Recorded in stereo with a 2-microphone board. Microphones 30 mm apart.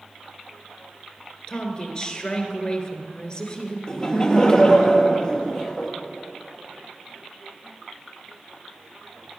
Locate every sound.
1.5 s a woman speaking: 30° left (ahead or behind), 1.4 m
3.9 s laughter: 30° left (ahead or behind), 2.5 m